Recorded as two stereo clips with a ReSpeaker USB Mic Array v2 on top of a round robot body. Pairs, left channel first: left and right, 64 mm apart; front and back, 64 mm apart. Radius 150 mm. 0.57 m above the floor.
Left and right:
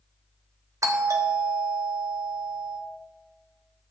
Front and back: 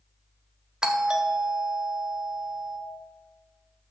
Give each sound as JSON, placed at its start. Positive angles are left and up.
{"t": 0.8, "sound": "a doorbell", "azimuth_deg": -105, "distance_m": 1.7}